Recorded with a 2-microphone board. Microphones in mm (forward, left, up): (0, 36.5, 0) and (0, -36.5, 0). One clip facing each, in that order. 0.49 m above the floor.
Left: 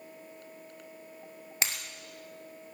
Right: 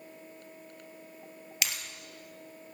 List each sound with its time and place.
1.6 s breaking glass: 35° left (ahead or behind), 2.5 m